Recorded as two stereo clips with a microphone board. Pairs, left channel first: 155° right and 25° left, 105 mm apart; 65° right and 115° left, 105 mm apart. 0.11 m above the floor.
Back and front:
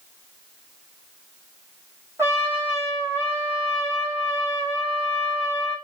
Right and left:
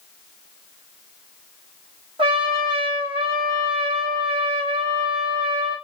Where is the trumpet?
85° left, 2.5 m.